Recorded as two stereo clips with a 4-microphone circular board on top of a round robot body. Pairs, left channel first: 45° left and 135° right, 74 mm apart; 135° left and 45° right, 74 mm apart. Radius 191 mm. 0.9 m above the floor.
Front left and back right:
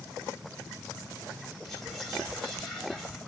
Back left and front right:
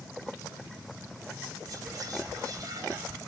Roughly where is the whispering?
Ahead right.